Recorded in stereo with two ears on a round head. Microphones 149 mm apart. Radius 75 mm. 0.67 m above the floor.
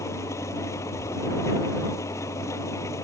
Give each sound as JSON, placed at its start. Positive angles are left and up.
{"t": 0.0, "sound": "an engine running", "side_deg": 20}